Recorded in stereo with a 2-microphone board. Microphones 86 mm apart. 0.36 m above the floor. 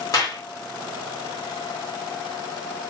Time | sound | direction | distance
0.1 | a clap | 40° left (ahead or behind) | 1.2 m